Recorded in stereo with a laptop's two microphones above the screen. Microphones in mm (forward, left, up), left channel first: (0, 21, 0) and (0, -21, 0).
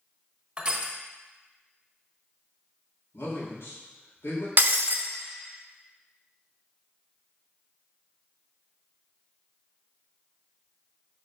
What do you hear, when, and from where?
0.6 s crushing: 20° right (ahead or behind), 1.2 m
3.1 s a man speaking: 80° left, 2.5 m
4.6 s breaking glass: 45° right (ahead or behind), 0.6 m